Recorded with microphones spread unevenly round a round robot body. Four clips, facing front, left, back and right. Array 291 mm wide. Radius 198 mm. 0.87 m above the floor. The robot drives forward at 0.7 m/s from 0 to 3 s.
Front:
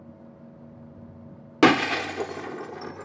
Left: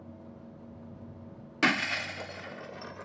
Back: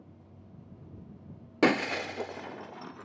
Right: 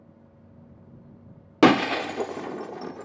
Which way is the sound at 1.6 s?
50° right.